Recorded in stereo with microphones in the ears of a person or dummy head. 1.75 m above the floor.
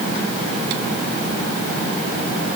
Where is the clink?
I don't hear a clink.